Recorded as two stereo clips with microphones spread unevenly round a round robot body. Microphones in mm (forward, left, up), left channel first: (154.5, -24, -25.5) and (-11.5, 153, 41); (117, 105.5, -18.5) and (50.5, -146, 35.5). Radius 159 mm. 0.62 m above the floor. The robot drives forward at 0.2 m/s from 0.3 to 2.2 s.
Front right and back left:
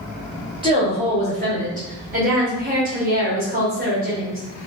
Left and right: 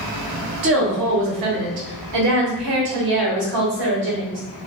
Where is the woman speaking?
145° right, 0.7 m; by 4.4 s 160° right, 0.9 m.